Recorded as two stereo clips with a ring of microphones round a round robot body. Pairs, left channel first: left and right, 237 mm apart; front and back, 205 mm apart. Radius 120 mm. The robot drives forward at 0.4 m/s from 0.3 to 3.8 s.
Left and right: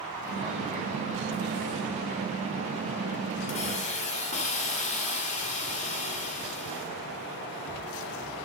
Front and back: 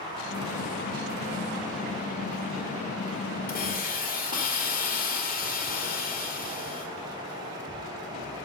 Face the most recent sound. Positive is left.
turn(degrees=35)